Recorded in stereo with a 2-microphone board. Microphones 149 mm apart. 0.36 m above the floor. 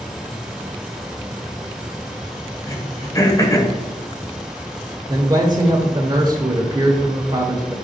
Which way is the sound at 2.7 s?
25° left (ahead or behind).